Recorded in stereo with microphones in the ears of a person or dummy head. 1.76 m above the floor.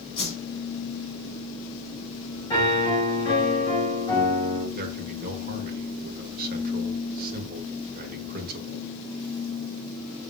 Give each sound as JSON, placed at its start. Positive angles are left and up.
{"t": 0.2, "sound": "a whoosh", "side_deg": 30, "distance_m": 2.5}
{"t": 2.5, "sound": "a piano", "side_deg": 20, "distance_m": 4.5}
{"t": 4.8, "sound": "a man speaking", "side_deg": -50, "distance_m": 1.4}